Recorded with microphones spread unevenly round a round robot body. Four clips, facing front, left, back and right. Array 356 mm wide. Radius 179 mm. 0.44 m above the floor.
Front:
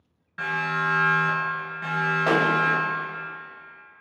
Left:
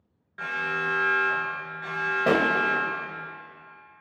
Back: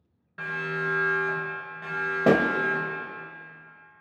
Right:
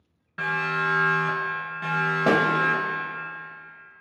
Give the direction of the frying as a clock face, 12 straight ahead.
I don't hear frying.